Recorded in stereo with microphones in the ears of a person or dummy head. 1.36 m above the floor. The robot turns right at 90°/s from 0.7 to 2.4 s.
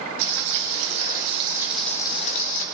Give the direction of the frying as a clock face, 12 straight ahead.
3 o'clock.